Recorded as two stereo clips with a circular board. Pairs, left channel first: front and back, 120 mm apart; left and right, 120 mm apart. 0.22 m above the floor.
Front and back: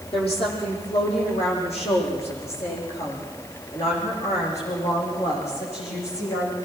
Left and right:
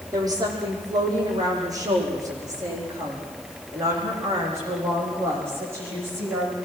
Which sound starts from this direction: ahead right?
A woman speaking, at 0.1 s.